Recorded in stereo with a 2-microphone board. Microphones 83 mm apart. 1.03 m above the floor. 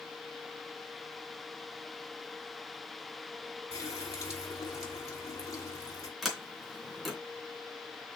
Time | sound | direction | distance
3.7 | a running tap | 40° left (ahead or behind) | 2.5 m
6.2 | a sliding door | centre (ahead or behind) | 3 m